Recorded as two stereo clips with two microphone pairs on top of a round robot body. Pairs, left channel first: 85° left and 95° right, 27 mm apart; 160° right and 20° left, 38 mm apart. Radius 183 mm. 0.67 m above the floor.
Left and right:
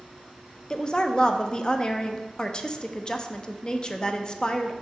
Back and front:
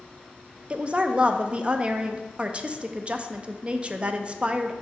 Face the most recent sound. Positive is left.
turn(degrees=30)